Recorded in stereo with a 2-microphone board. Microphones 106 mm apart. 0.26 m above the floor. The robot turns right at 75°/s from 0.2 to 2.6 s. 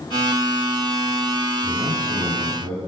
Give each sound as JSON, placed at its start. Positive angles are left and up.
{"t": 1.6, "sound": "a man speaking", "azimuth_deg": -165, "distance_m": 1.9}